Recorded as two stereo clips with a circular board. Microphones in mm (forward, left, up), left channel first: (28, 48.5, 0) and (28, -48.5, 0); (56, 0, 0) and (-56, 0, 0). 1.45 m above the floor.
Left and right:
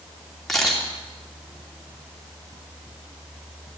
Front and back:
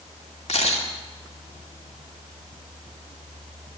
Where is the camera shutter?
5° left, 2.5 m.